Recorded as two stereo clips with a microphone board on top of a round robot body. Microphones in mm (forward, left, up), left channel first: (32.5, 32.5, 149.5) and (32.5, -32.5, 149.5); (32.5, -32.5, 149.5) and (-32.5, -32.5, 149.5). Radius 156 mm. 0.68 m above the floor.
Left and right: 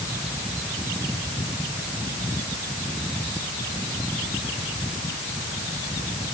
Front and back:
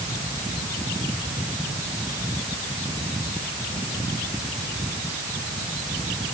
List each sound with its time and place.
Only background noise.